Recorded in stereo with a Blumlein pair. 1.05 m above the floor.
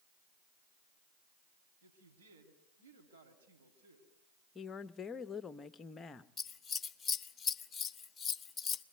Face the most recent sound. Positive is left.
turn(degrees=15)